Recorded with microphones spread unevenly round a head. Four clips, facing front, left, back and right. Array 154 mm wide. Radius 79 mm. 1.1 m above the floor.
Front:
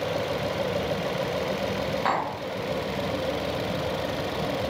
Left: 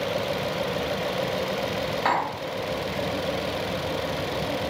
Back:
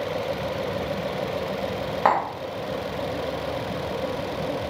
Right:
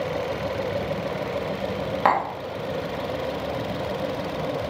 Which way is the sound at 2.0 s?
150° right.